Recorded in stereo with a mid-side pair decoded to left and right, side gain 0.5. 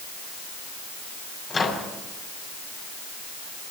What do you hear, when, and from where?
1.5 s a microwave: 35° left, 7 m